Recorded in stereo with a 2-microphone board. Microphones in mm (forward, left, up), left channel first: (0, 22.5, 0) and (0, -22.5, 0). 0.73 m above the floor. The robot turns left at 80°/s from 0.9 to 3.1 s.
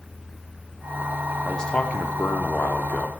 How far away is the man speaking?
About 1.4 m.